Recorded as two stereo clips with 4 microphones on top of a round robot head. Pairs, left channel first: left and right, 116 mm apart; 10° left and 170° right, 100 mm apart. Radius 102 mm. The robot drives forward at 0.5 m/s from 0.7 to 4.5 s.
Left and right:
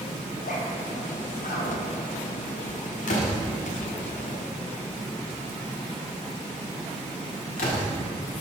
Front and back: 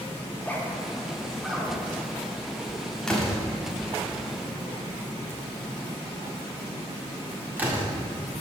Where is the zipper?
85° left, 1.4 m; by 2.1 s 110° left, 1.5 m.